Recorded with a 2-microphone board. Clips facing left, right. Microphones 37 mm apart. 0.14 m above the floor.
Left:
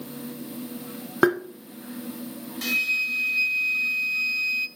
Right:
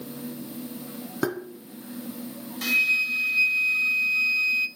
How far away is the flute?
About 0.6 m.